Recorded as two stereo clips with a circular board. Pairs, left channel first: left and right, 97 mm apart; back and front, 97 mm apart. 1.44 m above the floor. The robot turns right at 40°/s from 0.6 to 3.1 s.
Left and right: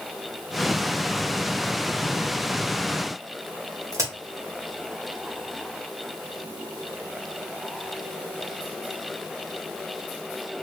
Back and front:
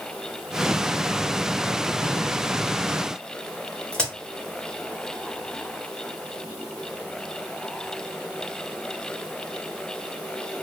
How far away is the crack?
About 1.4 m.